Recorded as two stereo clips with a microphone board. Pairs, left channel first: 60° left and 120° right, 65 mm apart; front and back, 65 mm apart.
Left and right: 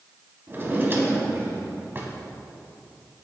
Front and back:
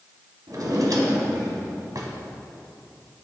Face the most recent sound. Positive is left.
turn(degrees=-170)